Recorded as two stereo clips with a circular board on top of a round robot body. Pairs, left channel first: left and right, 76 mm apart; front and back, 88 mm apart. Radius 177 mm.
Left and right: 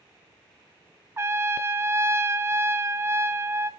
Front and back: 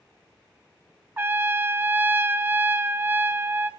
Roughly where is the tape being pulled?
I don't hear tape being pulled.